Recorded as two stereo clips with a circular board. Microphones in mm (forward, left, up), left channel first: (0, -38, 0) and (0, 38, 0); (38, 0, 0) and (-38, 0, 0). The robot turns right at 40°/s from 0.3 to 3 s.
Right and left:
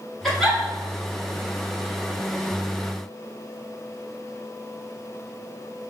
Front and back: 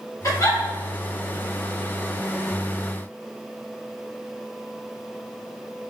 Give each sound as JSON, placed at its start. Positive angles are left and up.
{"t": 0.2, "sound": "a giggle", "azimuth_deg": -5, "distance_m": 1.8}